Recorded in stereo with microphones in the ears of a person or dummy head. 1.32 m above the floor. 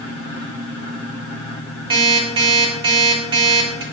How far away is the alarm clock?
About 1.0 m.